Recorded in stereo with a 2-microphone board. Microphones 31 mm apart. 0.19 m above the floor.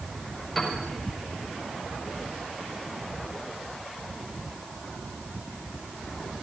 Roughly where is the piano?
Centre.